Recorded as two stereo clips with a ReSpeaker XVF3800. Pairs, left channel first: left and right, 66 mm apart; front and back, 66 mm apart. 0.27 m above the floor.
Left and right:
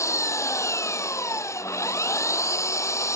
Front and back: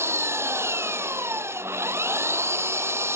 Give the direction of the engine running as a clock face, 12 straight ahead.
8 o'clock.